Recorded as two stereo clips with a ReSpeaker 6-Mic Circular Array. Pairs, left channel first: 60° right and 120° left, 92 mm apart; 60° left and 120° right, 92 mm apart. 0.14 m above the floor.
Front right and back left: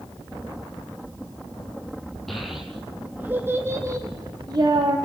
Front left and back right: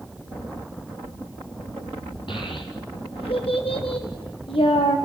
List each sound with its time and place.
2.3 s a child speaking: 30° left, 3 m; by 5.0 s 80° left, 4 m